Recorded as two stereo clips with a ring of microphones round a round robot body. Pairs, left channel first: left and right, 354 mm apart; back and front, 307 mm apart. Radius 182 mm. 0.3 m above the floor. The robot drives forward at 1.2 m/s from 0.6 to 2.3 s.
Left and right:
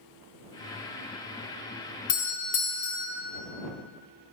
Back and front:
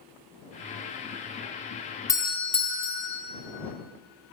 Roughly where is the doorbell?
Left.